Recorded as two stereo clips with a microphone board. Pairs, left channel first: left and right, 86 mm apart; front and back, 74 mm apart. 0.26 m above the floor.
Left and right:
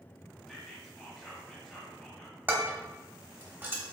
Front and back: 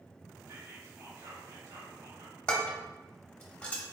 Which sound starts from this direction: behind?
Whispering, at 0.5 s.